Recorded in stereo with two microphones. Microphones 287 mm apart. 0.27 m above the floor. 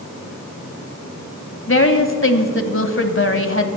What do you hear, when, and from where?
1.7 s a woman speaking: 45° left (ahead or behind), 1.2 m